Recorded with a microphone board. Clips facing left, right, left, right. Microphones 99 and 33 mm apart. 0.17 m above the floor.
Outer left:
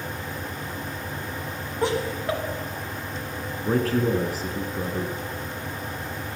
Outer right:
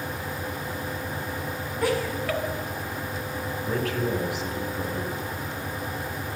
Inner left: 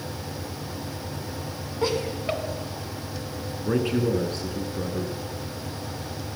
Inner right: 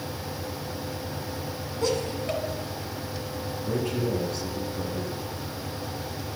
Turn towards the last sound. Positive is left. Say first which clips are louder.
# outer left 6 dB, inner left 5 dB
turn(degrees=40)  # may be behind; listen again after turning